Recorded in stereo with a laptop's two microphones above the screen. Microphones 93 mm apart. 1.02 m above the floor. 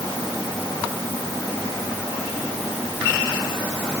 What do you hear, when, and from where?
Only background noise.